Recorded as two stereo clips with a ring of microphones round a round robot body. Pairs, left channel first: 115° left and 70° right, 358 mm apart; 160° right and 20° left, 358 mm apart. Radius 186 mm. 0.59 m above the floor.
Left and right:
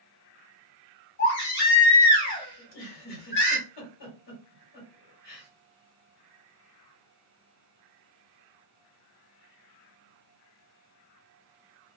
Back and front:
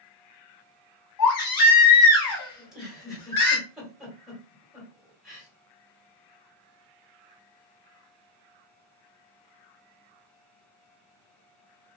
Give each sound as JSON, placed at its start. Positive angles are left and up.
{"t": 1.2, "sound": "a baby crying", "azimuth_deg": 170, "distance_m": 1.5}
{"t": 2.6, "sound": "a giggle", "azimuth_deg": 110, "distance_m": 1.5}